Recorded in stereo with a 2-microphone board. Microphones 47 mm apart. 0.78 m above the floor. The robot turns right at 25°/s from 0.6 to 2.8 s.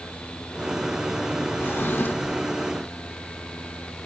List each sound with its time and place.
1.6 s a drawer: 55° left (ahead or behind); by 2.5 s 35° left (ahead or behind)